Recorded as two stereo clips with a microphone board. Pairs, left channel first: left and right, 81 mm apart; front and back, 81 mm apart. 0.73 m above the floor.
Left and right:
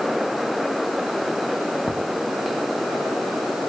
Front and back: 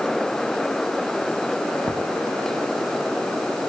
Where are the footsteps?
140° left, 8.5 m.